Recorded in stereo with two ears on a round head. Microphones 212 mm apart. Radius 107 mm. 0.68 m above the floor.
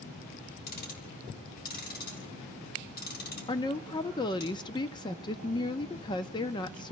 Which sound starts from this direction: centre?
A woman speaking, at 3.5 s.